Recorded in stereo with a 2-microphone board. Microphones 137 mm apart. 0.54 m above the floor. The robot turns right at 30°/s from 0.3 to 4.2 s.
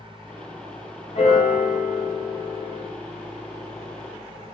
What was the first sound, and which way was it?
A piano, 65° left.